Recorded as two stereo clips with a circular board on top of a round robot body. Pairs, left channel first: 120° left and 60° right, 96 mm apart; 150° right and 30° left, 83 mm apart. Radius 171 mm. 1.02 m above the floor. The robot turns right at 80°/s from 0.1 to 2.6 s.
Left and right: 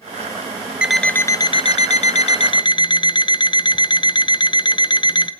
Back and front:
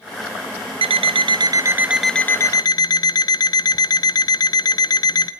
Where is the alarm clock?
20° left, 0.7 m; by 5.3 s 165° left, 0.7 m.